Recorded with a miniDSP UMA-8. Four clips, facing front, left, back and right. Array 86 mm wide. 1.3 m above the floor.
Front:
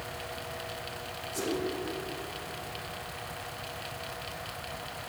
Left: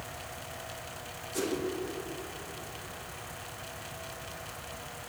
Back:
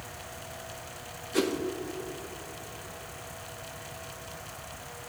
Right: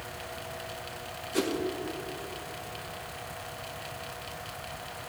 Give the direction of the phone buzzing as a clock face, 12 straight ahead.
No phone buzzing in this recording.